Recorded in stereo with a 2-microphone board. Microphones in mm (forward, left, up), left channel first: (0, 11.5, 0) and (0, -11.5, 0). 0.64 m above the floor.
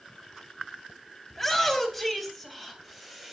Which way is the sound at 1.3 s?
Centre (ahead or behind).